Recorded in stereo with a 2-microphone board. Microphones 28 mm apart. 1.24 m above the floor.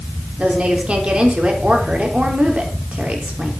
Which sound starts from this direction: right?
A woman speaking, at 0.4 s.